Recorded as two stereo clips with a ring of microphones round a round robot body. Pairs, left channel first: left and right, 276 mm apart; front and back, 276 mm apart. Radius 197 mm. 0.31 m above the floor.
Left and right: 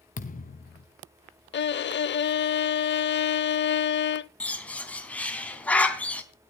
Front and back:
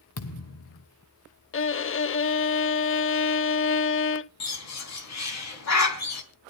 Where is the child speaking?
I don't hear a child speaking.